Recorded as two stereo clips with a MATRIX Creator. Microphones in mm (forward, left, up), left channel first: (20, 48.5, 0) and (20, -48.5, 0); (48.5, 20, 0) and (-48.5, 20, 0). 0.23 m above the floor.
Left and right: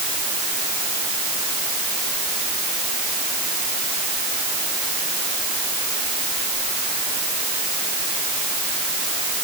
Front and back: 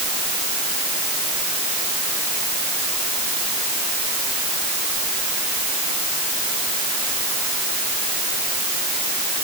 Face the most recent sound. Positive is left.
No sound to turn to.